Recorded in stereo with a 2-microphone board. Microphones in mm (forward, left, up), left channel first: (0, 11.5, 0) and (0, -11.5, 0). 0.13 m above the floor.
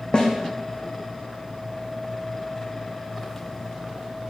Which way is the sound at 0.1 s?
35° left (ahead or behind).